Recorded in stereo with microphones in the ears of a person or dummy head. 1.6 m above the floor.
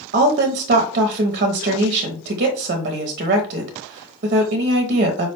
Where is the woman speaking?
40° right (ahead or behind), 0.6 m.